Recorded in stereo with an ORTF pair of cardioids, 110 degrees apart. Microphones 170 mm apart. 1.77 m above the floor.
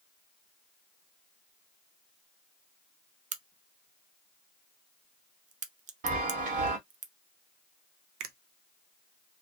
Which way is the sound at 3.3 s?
45° right.